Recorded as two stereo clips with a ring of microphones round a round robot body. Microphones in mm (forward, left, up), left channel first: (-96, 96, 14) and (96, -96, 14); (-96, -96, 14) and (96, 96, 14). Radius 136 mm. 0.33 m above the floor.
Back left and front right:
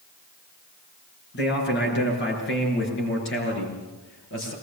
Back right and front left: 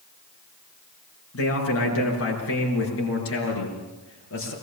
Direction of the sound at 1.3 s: 175° right.